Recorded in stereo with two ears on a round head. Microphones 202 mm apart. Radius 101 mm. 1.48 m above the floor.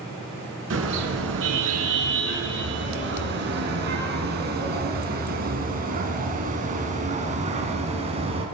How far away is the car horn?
About 7 m.